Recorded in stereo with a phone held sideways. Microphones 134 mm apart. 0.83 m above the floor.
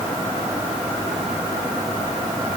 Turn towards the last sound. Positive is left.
No sound to turn to.